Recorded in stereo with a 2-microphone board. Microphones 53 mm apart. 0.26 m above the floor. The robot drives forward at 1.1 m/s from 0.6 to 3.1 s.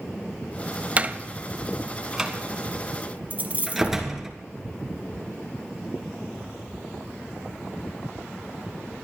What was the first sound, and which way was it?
A door slam, 30° right (ahead or behind).